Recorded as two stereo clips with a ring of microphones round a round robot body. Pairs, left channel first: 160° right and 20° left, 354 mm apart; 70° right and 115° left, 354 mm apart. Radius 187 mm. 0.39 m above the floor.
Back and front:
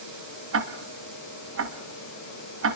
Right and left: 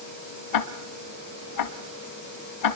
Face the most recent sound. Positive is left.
turn(degrees=-30)